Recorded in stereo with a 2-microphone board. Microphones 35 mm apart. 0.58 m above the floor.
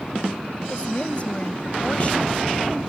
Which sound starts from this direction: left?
A woman speaking, at 0.7 s.